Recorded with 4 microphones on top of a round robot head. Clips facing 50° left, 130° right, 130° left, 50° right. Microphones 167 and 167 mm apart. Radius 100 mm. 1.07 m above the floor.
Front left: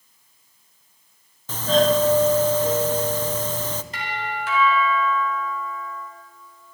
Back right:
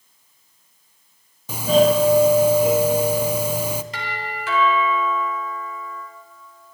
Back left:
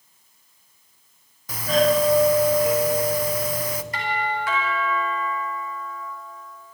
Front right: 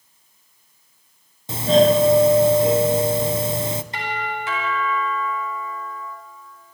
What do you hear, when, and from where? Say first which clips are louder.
1.5 s a doorbell: back right 3 dB, front right 5 dB; 65° right, 0.6 m
3.9 s a doorbell: front left 1 dB, back left 1 dB; 115° right, 4.5 m